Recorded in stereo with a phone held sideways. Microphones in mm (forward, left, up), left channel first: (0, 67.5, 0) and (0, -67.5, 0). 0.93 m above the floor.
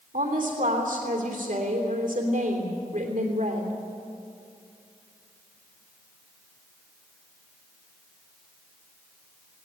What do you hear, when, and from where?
0.1 s a woman speaking: 80° right, 3 m